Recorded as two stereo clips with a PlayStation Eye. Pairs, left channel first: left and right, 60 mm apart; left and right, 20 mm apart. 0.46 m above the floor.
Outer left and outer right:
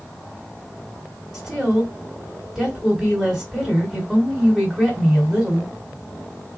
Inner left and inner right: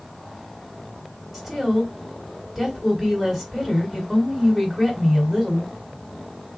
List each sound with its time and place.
1.3 s a woman speaking: centre (ahead or behind), 1.8 m